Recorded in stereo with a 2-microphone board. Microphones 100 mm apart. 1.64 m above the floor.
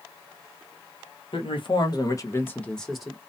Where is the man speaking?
65° left (ahead or behind), 1.2 m; by 3.2 s 5° right (ahead or behind), 1.1 m.